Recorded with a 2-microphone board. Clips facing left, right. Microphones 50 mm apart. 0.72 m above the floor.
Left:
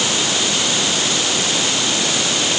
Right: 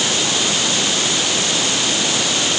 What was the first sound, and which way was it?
Only background noise.